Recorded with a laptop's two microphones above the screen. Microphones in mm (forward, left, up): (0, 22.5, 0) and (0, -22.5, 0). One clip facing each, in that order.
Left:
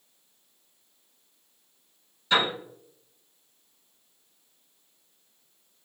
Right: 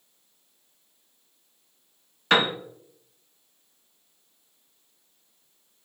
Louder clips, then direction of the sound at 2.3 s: Right 3 dB; 70° right (ahead or behind).